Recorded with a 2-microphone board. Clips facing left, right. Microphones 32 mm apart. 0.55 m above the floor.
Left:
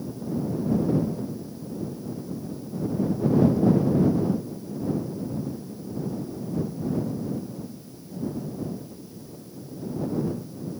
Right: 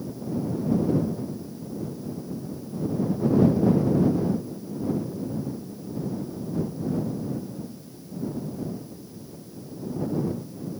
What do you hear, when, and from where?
Only background noise.